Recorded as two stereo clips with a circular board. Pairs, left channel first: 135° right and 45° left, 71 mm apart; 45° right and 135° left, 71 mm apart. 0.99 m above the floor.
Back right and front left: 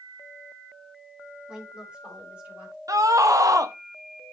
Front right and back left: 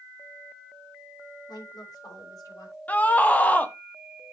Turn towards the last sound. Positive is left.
turn(degrees=20)